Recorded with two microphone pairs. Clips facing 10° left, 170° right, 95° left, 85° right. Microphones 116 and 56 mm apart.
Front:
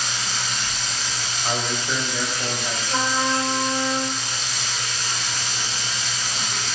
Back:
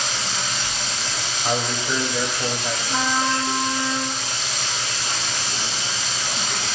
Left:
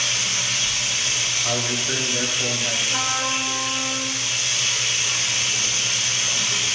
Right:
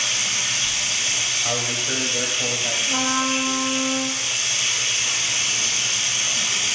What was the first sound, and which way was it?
Running water, 155° right.